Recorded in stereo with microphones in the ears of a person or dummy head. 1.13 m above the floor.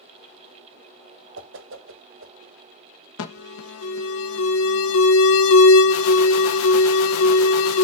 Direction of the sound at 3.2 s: 85° left.